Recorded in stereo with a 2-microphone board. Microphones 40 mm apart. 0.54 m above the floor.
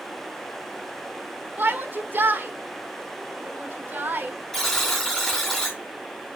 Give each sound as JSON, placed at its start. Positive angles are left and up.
{"t": 1.6, "sound": "a shout", "side_deg": -60, "distance_m": 1.4}
{"t": 4.5, "sound": "a buzzer", "side_deg": 10, "distance_m": 3.0}